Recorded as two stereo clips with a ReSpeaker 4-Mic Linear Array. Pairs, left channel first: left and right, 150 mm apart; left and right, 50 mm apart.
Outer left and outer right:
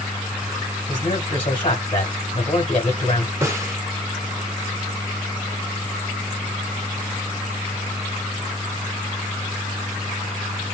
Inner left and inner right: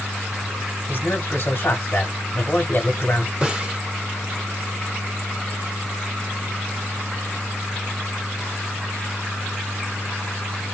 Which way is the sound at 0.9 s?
40° left (ahead or behind).